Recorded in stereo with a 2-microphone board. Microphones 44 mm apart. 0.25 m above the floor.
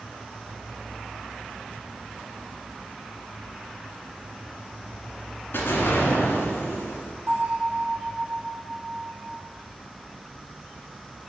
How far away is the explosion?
About 2 m.